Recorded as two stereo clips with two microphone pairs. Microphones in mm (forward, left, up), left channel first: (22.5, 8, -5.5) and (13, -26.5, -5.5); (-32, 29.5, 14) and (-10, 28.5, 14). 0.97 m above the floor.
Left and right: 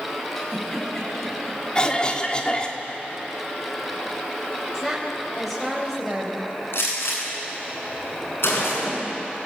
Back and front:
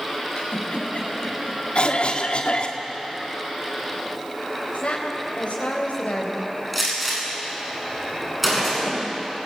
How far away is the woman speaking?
About 4 m.